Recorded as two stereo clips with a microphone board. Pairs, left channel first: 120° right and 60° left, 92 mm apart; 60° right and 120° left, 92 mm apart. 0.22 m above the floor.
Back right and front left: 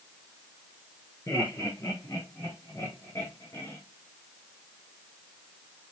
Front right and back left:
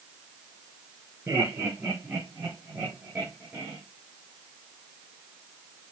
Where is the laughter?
Straight behind, 5.5 m; by 3.8 s 175° left, 3 m.